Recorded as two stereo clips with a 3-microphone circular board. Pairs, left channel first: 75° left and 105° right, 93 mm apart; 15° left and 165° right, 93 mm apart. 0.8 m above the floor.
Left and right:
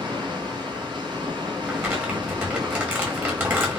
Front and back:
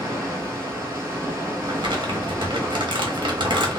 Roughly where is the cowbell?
No cowbell in this recording.